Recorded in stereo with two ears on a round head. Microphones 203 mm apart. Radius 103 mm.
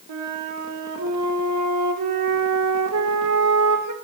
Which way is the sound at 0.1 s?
85° right.